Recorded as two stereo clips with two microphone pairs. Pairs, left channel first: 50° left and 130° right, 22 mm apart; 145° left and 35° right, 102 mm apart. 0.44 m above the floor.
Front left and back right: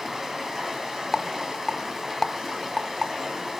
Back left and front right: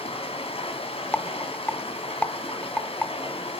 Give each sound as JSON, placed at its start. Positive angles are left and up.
{"t": 0.0, "sound": "running water", "azimuth_deg": 160, "distance_m": 2.0}
{"t": 1.1, "sound": "a rattle", "azimuth_deg": 75, "distance_m": 0.5}